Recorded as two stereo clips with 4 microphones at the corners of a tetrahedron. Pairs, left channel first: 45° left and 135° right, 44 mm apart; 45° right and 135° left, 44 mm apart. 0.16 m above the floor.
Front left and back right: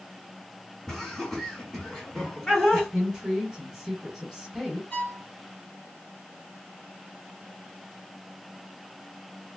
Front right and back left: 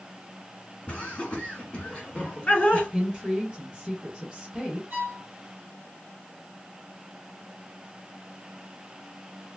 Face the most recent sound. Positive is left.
turn(degrees=95)